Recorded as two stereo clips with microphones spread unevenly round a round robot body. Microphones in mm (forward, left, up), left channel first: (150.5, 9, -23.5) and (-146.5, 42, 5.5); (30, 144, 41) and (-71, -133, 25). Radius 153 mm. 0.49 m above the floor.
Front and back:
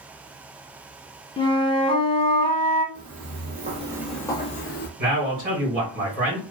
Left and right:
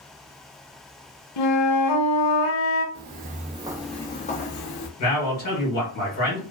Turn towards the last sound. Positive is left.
turn(degrees=120)